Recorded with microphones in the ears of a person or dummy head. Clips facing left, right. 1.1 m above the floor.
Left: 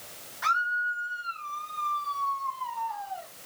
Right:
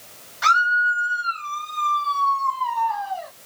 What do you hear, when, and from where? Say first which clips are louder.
0.4 s a scream: right 9 dB; 75° right (ahead or behind); by 3.3 s 65° right (ahead or behind)